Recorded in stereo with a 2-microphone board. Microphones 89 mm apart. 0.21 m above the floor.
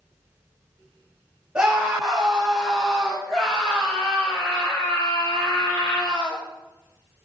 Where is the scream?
10° right (ahead or behind), 3 m; by 6.4 s 50° left (ahead or behind), 2.5 m.